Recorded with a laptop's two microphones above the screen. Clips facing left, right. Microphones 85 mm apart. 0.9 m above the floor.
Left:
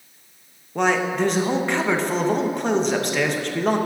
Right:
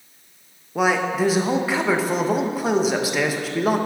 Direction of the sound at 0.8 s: 5° right (ahead or behind).